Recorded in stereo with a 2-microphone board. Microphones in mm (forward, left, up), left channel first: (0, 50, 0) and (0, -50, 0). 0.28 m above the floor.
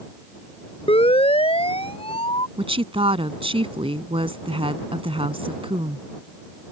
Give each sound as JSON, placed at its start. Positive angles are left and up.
{"t": 0.9, "sound": "a siren", "side_deg": 70}
{"t": 2.6, "sound": "a woman speaking", "side_deg": -65}